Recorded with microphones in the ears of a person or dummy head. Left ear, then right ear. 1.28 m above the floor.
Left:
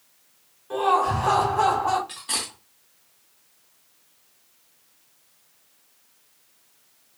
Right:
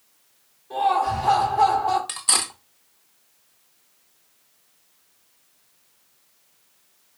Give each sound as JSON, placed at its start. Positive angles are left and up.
{"t": 0.7, "sound": "laughter", "side_deg": 50, "distance_m": 2.0}
{"t": 2.1, "sound": "cutlery clinking", "side_deg": -55, "distance_m": 0.9}